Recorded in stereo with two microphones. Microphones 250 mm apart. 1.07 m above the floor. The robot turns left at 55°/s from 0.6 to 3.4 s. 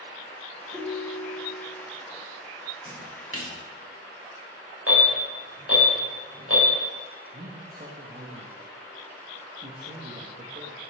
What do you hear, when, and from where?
0.7 s a ringtone: 15° right, 3.5 m; by 1.8 s 75° right, 3.5 m
2.9 s a splash: 30° left (ahead or behind), 1.7 m; by 3.5 s 60° left (ahead or behind), 1.7 m
4.9 s an alarm: 60° right (ahead or behind), 4.5 m
7.3 s a man speaking: 40° right (ahead or behind), 1.1 m